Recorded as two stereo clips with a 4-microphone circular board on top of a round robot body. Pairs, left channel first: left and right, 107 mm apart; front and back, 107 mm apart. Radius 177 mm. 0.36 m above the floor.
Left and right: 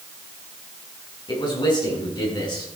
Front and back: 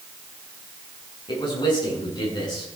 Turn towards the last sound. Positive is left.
turn(degrees=45)